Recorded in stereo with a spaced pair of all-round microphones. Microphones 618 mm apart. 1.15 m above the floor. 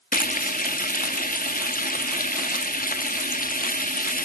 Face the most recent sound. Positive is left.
turn(degrees=15)  # may be behind; listen again after turning